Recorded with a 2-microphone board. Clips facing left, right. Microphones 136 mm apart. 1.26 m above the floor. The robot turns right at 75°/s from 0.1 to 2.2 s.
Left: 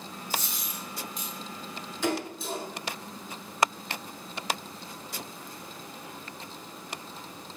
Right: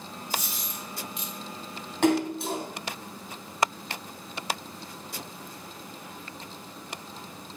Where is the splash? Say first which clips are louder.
Right 7 dB; 75° right (ahead or behind), 3 m; by 2.6 s 70° right (ahead or behind), 3 m.